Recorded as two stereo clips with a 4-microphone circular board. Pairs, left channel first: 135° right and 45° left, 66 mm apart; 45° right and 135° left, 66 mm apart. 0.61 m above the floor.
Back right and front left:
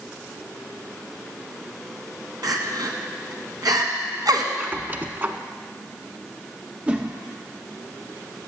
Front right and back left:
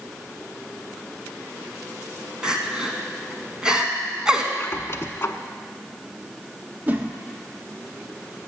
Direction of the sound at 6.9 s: 100° left.